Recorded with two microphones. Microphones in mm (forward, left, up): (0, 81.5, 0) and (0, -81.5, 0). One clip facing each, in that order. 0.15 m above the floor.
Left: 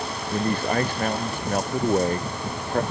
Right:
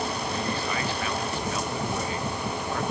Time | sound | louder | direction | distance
0.3 | a man speaking | left 6 dB | 55° left (ahead or behind) | ?